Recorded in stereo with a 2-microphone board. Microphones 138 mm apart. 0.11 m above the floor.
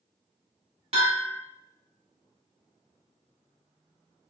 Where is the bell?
45° right (ahead or behind), 1.5 m.